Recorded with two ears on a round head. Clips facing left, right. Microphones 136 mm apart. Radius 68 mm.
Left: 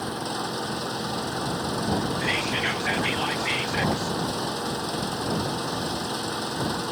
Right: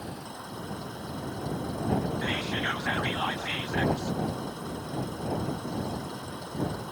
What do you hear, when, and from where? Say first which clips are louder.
0.0 s an engine running: left 10 dB; 85° left
2.2 s whispering: left 4 dB; 20° left (ahead or behind)